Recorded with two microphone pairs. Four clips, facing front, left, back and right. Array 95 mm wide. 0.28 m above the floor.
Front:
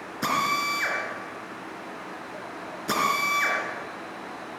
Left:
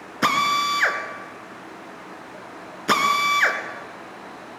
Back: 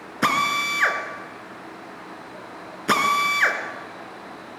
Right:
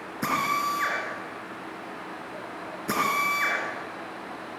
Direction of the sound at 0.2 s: 125° left.